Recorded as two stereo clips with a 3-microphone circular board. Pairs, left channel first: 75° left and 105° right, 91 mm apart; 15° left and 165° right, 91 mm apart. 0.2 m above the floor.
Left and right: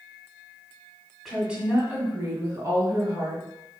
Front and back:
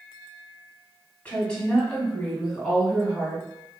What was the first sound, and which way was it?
A woman speaking, 25° right.